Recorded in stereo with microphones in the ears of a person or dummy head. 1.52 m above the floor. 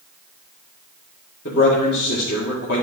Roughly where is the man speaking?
Left.